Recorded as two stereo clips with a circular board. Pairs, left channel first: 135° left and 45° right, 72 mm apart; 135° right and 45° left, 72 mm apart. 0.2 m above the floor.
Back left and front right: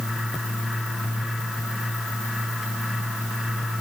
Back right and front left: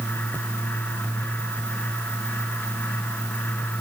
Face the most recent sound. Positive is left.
No sound to turn to.